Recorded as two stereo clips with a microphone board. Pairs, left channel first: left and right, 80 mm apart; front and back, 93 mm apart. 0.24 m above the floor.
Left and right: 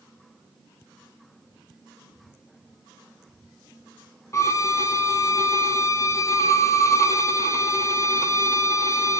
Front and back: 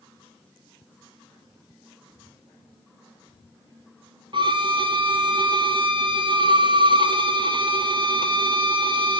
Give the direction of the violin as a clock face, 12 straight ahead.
7 o'clock.